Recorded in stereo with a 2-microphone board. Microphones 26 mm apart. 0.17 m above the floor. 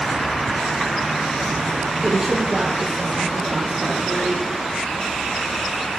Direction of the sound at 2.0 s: 45° right (ahead or behind).